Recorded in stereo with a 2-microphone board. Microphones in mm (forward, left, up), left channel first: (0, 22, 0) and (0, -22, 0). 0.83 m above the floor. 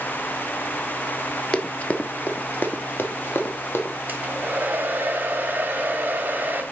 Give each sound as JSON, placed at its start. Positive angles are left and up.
{"t": 1.5, "sound": "running footsteps", "side_deg": 20, "distance_m": 0.8}
{"t": 4.1, "sound": "a hair dryer", "side_deg": -35, "distance_m": 1.5}